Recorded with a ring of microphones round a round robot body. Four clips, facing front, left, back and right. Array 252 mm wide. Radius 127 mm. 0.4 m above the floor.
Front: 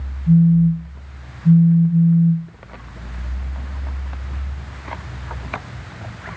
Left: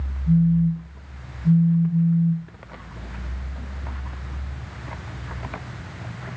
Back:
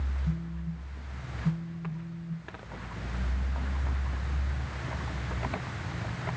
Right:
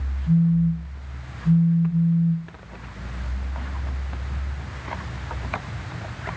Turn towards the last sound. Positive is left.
turn(degrees=15)